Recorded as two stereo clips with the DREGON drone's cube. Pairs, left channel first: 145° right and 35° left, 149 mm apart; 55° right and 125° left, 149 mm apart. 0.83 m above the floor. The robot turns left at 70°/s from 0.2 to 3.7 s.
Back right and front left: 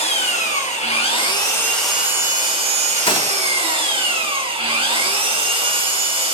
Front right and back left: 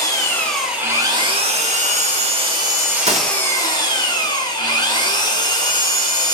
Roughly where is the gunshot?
Behind.